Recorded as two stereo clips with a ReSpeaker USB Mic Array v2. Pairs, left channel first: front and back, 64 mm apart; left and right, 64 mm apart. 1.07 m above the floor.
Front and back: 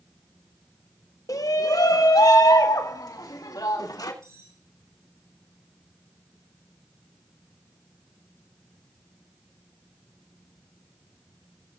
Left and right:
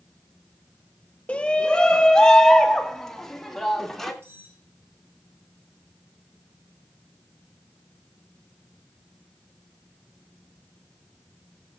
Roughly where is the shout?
Ahead.